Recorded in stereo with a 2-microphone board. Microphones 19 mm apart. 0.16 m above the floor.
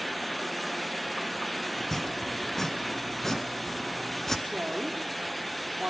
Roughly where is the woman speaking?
Right.